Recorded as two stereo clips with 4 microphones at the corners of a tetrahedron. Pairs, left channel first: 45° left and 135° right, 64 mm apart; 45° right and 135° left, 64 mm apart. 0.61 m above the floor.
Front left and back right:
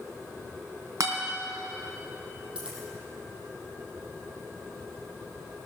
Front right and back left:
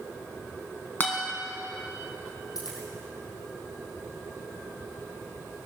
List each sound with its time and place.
1.0 s a guitar: 105° right, 3 m
2.5 s a dropped coin: 60° right, 4.5 m